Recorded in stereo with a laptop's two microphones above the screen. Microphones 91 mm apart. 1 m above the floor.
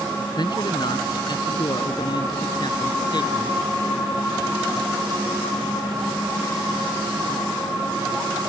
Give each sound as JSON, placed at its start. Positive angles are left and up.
{"t": 0.4, "sound": "a man speaking", "side_deg": 50}